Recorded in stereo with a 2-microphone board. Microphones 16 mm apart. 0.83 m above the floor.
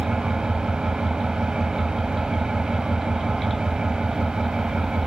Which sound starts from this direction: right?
An engine running, at 0.0 s.